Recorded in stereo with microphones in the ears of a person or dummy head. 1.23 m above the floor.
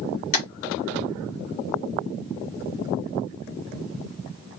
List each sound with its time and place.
0.3 s tapping: 40° left (ahead or behind), 0.8 m